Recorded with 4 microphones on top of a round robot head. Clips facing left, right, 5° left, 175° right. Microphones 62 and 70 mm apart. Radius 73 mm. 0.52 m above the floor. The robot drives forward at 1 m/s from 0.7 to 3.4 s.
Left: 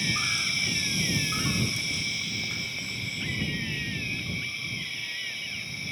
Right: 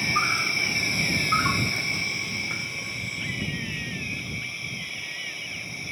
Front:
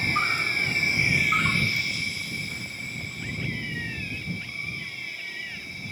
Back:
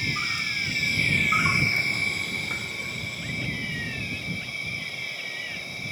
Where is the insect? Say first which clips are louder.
Right 5 dB, front 4 dB; 45° right, 1.1 m; by 5.9 s 165° right, 2 m.